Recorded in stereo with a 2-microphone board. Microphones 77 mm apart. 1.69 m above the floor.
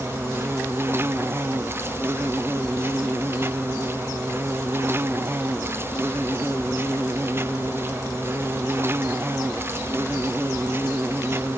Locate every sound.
0.0 s an insect: 35° right (ahead or behind)